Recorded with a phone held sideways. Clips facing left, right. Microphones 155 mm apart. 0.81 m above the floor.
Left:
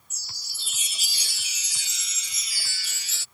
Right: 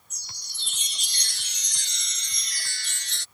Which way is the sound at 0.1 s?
5° left (ahead or behind).